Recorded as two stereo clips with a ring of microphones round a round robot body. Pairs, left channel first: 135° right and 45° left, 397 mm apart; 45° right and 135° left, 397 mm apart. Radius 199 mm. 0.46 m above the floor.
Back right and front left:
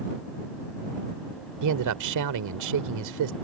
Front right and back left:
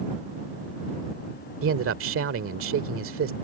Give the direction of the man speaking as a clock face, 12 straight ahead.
9 o'clock.